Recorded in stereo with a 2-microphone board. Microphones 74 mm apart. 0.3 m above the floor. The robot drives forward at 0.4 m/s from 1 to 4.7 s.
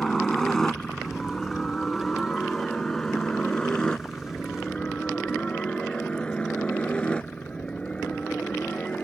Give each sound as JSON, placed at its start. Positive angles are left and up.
{"t": 0.0, "sound": "a helicopter", "side_deg": 5}